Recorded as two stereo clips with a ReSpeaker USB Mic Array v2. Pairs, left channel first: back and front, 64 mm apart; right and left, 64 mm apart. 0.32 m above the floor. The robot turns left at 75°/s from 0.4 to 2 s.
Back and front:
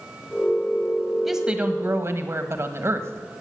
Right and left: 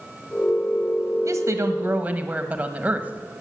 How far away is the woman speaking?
About 1.4 m.